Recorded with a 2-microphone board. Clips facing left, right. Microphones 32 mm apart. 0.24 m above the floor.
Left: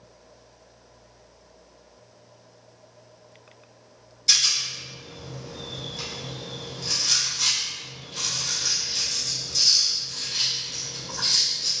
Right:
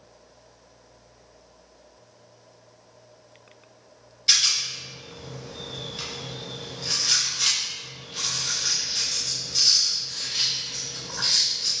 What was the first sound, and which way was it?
A rattle, 25° right (ahead or behind).